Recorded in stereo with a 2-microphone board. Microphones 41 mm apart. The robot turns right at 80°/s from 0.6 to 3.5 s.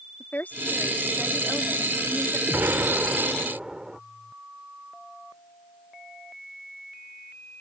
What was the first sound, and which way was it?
A woman speaking, 120° left.